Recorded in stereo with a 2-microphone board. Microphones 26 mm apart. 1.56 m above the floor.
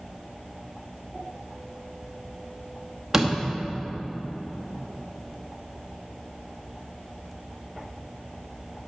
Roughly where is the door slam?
Centre.